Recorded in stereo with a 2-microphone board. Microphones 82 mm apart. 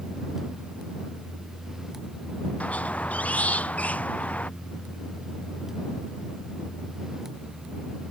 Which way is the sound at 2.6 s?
15° left (ahead or behind).